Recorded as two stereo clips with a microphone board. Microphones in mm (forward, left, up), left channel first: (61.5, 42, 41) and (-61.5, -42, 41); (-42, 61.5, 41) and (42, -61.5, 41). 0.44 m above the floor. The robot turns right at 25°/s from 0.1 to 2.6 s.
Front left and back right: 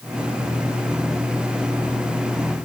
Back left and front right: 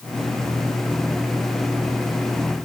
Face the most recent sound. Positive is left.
No sound to turn to.